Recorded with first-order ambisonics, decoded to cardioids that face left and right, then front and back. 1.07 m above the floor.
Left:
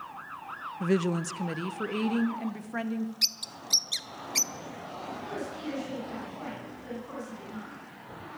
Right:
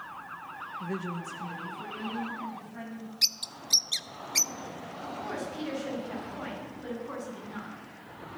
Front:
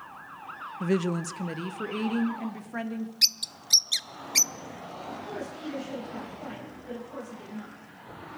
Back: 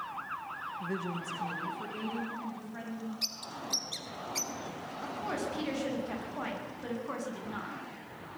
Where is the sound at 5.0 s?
170° right, 9.5 m.